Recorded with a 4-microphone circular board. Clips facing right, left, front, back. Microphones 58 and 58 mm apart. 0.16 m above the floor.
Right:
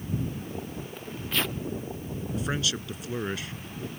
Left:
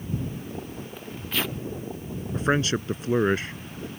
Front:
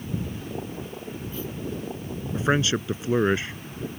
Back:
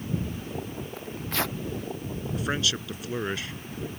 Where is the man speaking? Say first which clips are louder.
Left 8 dB, front 6 dB; 55° left.